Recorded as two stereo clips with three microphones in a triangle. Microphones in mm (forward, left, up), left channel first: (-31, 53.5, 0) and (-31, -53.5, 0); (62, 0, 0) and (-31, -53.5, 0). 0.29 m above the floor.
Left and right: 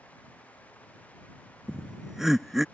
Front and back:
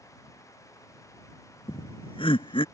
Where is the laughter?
5° right.